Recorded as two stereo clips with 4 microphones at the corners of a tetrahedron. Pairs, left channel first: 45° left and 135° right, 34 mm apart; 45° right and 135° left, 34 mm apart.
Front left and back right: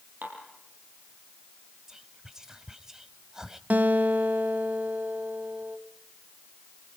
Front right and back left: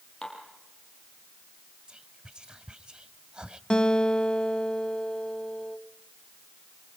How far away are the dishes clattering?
About 6 m.